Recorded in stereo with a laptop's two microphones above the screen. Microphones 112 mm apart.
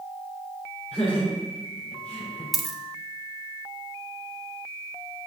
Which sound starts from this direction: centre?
A dropped coin, at 2.5 s.